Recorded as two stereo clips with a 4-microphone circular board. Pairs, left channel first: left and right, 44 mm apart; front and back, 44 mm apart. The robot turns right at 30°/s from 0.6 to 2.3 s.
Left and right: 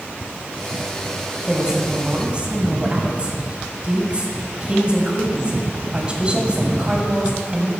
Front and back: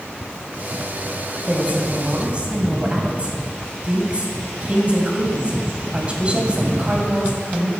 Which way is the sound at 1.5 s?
165° right.